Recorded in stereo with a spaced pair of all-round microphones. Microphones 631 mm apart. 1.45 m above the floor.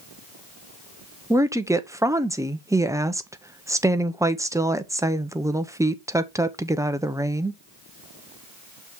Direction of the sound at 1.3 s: 5° right (ahead or behind).